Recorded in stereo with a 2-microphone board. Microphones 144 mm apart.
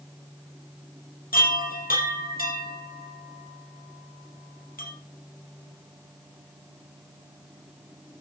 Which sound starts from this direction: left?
A chime, at 1.3 s.